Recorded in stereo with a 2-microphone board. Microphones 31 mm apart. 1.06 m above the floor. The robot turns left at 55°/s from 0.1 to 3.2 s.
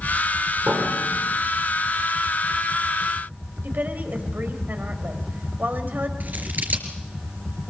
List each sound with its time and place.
0.7 s a piano: 80° right, 4 m; by 1.4 s 115° right, 4 m
3.6 s a woman speaking: 75° right (ahead or behind), 4.5 m
6.2 s scissors: 65° right (ahead or behind), 3.5 m